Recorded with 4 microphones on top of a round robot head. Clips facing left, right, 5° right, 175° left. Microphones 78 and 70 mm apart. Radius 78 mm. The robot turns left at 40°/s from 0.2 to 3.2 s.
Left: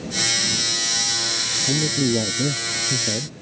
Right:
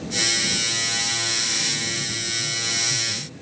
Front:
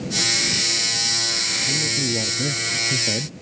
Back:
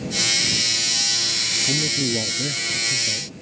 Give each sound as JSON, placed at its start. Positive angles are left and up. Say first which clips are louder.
{"t": 1.6, "sound": "a man speaking", "louder": "left 9 dB, back 2 dB", "azimuth_deg": 105}